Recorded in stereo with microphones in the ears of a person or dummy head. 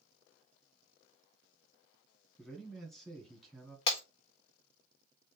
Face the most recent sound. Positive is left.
turn(degrees=30)  # may be behind; listen again after turning